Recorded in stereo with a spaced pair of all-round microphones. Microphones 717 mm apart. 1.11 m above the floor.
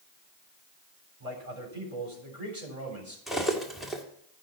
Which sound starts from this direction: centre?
Cutlery clinking, at 3.3 s.